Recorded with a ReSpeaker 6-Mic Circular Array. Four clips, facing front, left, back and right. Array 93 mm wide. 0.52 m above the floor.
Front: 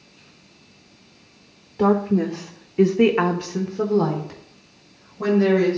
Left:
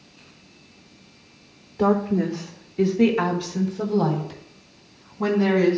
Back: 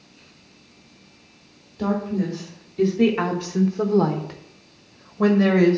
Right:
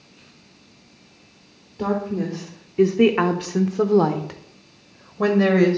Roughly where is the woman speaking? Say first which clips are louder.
Left 4 dB, front 5 dB; ahead.